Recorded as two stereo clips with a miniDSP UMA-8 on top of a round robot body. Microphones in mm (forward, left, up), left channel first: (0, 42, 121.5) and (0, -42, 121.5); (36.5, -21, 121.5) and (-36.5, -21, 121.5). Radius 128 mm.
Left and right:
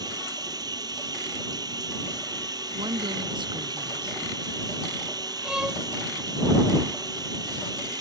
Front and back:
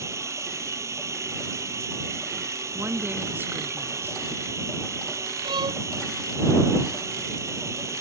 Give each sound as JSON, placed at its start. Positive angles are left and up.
{"t": 0.0, "sound": "running water", "azimuth_deg": -130}
{"t": 2.7, "sound": "a woman speaking", "azimuth_deg": -120}
{"t": 5.4, "sound": "a violin", "azimuth_deg": -170}